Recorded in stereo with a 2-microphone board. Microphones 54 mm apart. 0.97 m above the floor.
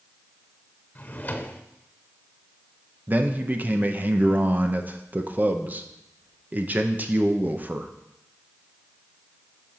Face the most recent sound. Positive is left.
turn(degrees=-35)  # may be behind; listen again after turning